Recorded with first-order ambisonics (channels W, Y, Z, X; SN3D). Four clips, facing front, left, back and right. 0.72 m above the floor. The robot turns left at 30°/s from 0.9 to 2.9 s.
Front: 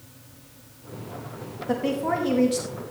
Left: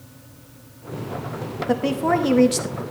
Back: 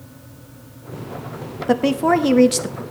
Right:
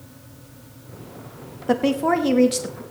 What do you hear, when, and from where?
1.7 s a woman speaking: 160° right, 1.0 m; by 2.8 s 165° left, 1.0 m